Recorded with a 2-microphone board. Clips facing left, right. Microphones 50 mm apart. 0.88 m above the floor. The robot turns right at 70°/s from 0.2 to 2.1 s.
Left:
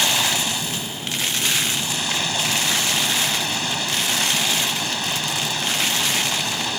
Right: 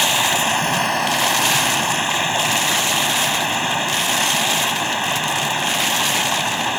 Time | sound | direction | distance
0.0 | running water | 160° right | ?